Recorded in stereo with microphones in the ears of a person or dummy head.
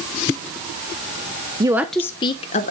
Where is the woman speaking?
20° right (ahead or behind), 0.6 m; by 2.7 s 40° left (ahead or behind), 0.8 m.